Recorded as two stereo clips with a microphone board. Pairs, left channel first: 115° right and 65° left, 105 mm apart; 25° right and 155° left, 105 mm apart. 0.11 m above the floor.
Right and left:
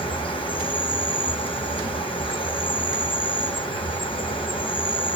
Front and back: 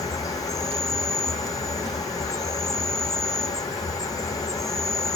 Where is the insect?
80° right, 1.0 m.